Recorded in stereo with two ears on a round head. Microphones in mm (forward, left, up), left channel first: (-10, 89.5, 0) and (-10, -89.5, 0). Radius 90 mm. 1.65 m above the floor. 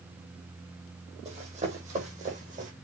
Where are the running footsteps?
35° right (ahead or behind), 3.5 m; by 2.7 s 40° right (ahead or behind), 4.5 m.